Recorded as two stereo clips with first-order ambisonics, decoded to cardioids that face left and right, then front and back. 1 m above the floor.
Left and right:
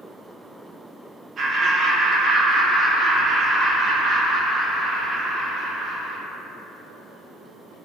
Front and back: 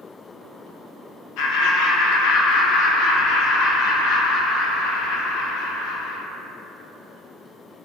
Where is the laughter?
25° right, 0.5 m.